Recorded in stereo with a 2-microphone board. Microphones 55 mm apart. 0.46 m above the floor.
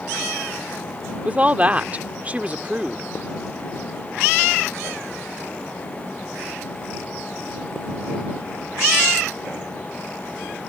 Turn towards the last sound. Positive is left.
turn(degrees=-25)  # may be behind; listen again after turning